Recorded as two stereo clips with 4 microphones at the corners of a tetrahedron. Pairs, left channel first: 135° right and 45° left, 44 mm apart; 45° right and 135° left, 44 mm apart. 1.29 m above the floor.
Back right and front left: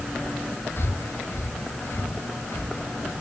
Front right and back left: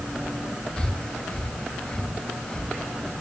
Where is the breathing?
110° right, 1.9 m.